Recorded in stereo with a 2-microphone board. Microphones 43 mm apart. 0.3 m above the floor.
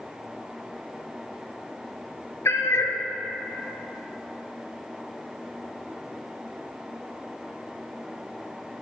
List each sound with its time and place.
2.5 s a cat meowing: 85° left, 0.9 m